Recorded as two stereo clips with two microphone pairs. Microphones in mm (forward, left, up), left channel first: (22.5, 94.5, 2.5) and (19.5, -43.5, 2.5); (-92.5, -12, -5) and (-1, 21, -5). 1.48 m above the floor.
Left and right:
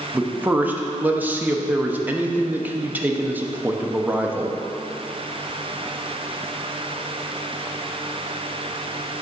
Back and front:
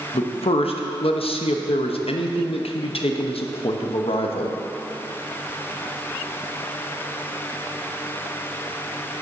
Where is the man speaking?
170° right, 0.7 m.